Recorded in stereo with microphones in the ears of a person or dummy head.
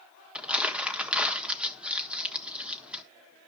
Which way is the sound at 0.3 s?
5° right (ahead or behind).